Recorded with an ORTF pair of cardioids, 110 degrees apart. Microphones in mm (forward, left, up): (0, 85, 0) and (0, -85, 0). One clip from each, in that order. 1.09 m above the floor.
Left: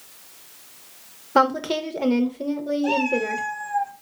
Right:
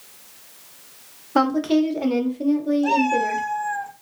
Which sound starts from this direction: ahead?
A woman speaking, at 1.4 s.